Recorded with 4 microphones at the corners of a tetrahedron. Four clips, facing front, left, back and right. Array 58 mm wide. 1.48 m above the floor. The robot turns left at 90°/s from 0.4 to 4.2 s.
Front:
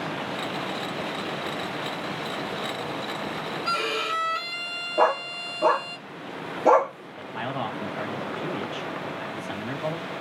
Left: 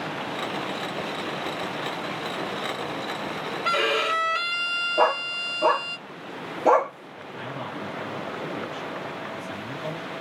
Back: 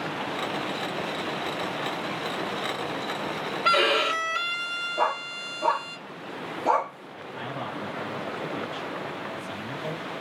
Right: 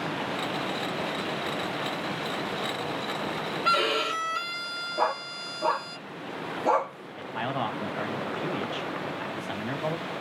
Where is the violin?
170° left, 1.1 m; by 6.0 s 120° left, 1.1 m.